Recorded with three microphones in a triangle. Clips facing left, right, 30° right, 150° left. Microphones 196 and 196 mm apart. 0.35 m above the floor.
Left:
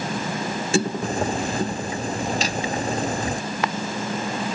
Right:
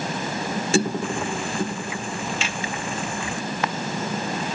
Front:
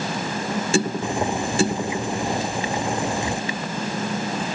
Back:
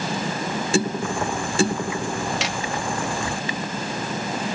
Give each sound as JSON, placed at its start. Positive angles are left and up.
{"t": 1.0, "sound": "boiling", "azimuth_deg": 40}
{"t": 2.4, "sound": "hammering", "azimuth_deg": 140}